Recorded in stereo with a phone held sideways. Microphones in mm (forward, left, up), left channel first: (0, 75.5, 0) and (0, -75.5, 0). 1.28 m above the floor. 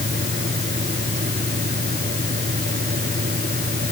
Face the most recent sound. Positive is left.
turn(degrees=-70)  # may be behind; listen again after turning